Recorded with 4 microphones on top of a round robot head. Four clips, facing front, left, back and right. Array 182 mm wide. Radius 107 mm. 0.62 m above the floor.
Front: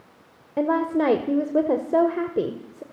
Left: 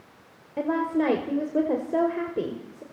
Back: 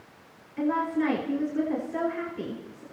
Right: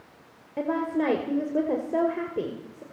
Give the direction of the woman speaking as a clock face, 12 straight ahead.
12 o'clock.